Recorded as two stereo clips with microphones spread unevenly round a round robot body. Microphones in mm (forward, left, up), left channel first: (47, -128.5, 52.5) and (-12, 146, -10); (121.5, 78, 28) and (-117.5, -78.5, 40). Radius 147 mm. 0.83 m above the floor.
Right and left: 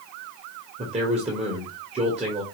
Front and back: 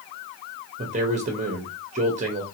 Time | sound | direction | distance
0.8 | a man speaking | 150° left | 1.1 m